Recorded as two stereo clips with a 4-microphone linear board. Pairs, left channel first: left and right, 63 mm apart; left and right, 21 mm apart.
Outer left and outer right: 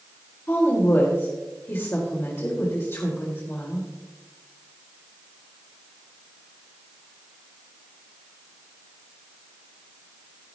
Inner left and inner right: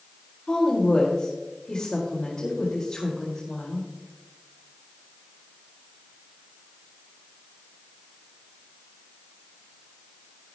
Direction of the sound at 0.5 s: 40° left (ahead or behind).